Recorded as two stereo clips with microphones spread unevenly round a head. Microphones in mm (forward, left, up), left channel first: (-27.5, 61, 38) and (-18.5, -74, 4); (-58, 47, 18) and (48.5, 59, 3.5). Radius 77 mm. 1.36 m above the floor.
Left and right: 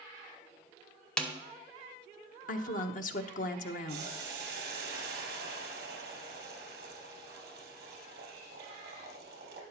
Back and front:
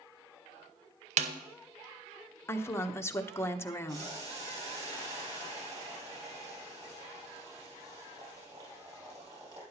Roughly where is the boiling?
Ahead right.